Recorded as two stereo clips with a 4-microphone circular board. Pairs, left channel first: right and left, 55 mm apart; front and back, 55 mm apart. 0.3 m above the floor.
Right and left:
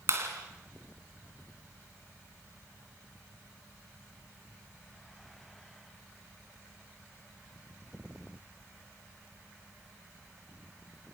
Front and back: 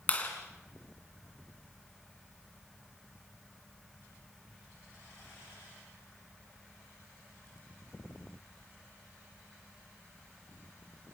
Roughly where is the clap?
Ahead left.